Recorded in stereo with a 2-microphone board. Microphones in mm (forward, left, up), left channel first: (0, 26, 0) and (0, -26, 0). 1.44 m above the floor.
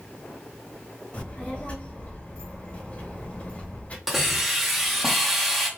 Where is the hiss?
5° right (ahead or behind), 1.3 m.